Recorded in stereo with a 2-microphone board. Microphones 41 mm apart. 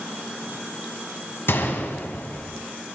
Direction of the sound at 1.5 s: 65° left (ahead or behind).